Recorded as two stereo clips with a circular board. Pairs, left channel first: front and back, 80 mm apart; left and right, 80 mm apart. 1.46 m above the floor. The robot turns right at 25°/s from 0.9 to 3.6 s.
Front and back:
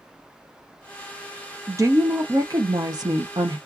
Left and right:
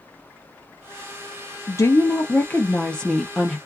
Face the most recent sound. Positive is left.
turn(degrees=180)